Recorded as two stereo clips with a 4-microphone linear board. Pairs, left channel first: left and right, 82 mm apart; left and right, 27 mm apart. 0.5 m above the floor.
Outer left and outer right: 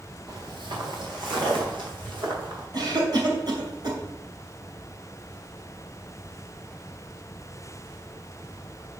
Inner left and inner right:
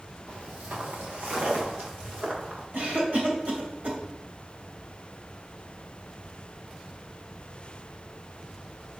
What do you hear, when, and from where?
0.3 s footsteps: 60° right (ahead or behind), 3 m; by 2.6 s 70° right (ahead or behind), 6.5 m
2.7 s a cough: 55° right (ahead or behind), 2.5 m